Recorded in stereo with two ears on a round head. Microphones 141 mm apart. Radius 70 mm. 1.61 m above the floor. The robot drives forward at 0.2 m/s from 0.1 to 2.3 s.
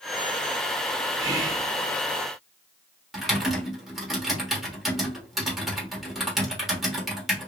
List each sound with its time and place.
1.2 s whispering: 25° right (ahead or behind), 0.9 m; by 1.7 s 20° right (ahead or behind), 1.0 m
3.1 s typing on a keyboard: centre (ahead or behind), 1.4 m